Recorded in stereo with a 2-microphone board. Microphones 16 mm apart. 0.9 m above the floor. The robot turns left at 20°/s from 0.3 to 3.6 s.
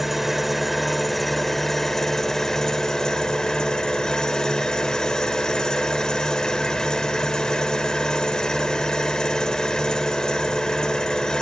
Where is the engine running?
170° right, 1.3 m; by 11.4 s 125° left, 1.3 m.